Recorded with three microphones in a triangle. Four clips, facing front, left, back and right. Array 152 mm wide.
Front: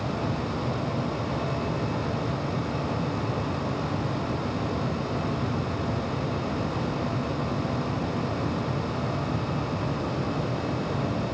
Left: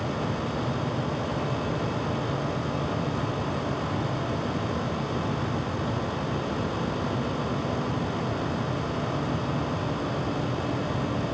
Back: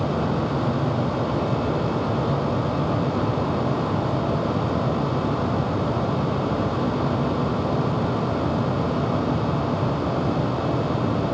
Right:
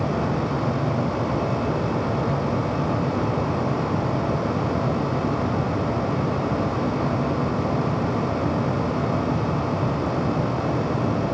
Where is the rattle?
I don't hear a rattle.